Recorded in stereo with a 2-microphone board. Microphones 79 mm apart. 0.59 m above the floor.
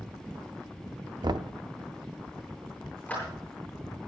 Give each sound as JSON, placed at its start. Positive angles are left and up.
{"t": 1.2, "sound": "knocking", "side_deg": -60, "distance_m": 0.6}
{"t": 3.1, "sound": "a clap", "side_deg": 15, "distance_m": 9.5}